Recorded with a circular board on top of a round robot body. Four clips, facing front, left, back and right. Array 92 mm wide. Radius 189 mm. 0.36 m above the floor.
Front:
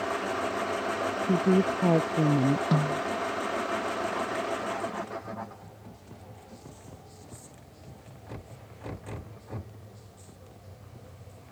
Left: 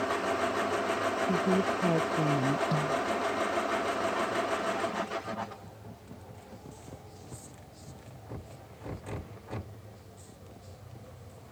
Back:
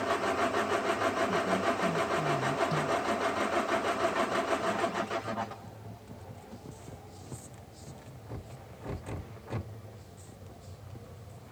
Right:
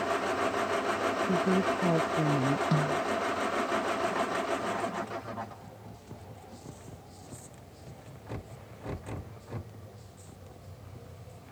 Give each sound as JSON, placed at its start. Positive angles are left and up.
{"t": 1.3, "sound": "a woman speaking", "azimuth_deg": 0}
{"t": 2.7, "sound": "a snare drum", "azimuth_deg": -10}